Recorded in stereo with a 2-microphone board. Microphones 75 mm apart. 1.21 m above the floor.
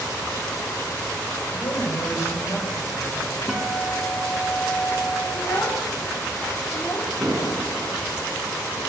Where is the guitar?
10° right (ahead or behind), 2.0 m.